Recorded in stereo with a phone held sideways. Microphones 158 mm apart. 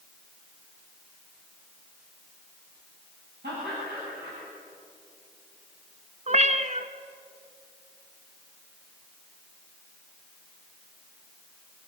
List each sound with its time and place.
3.4 s laughter: 85° right, 9 m
6.3 s a cat meowing: 45° right (ahead or behind), 1.1 m